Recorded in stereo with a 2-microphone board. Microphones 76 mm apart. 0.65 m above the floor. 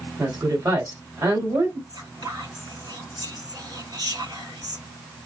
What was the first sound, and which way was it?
A woman speaking, 55° right (ahead or behind).